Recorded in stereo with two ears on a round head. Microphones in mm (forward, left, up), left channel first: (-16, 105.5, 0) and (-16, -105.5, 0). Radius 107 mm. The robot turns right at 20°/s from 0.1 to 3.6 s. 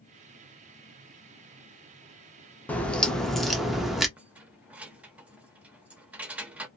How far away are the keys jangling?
About 0.5 m.